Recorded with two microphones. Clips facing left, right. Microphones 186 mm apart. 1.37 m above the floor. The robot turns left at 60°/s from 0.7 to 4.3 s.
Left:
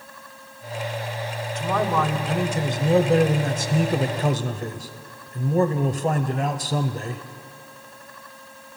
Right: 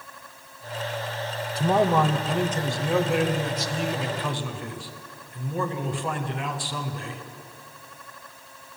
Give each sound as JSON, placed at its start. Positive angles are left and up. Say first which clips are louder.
{"t": 1.6, "sound": "a man speaking", "louder": "right 3 dB", "azimuth_deg": -135, "distance_m": 0.5}